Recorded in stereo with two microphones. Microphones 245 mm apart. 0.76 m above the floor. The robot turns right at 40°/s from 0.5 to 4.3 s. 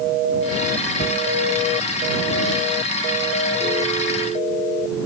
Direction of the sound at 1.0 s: 40° left (ahead or behind).